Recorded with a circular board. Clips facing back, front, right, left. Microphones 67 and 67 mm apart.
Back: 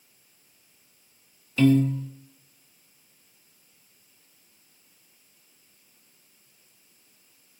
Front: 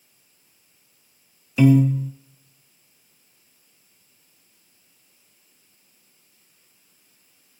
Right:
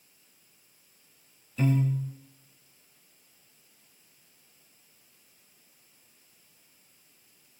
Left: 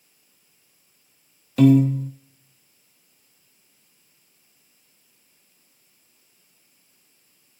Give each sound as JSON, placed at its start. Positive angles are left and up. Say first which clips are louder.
{"t": 1.6, "sound": "a piano", "louder": "front 3 dB, left 12 dB", "azimuth_deg": 75, "distance_m": 1.4}